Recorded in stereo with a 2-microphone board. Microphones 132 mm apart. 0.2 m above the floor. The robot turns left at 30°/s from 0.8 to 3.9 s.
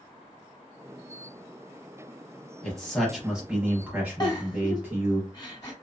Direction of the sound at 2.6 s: Centre (ahead or behind).